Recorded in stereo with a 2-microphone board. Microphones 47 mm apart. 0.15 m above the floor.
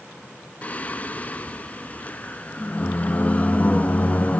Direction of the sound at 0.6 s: 30° left (ahead or behind).